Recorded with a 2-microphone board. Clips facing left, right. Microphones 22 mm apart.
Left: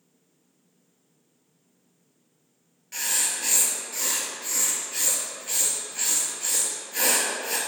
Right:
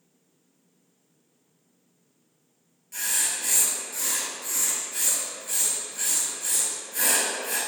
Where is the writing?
35° left (ahead or behind), 0.6 m.